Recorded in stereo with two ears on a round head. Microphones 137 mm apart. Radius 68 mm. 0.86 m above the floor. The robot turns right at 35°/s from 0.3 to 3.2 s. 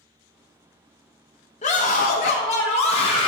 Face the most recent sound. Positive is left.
turn(degrees=125)